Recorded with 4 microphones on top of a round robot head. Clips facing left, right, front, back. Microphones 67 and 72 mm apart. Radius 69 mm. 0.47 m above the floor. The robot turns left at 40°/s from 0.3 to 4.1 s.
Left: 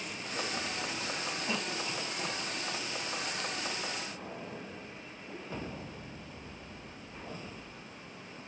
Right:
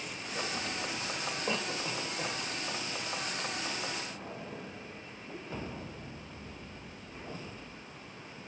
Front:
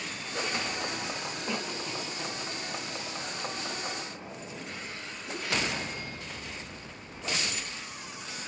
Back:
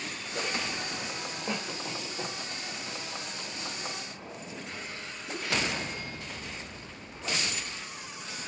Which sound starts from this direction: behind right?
A cough, at 1.5 s.